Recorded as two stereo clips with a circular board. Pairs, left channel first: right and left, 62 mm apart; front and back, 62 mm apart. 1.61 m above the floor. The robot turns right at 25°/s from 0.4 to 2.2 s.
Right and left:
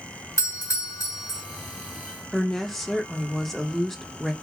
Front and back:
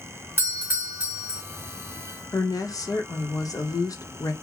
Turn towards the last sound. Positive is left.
turn(degrees=-5)